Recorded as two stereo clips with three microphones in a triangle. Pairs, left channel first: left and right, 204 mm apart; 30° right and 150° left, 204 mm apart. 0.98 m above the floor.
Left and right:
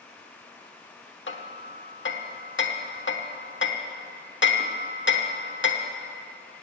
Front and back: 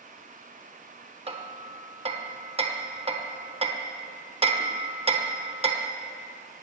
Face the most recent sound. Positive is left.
turn(degrees=90)